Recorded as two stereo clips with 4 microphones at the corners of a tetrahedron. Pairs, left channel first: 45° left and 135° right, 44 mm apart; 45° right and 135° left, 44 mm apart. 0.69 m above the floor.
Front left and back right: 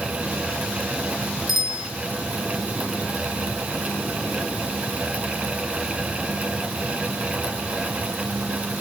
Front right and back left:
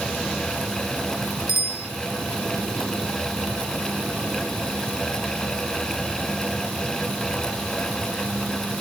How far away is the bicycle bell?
About 5 m.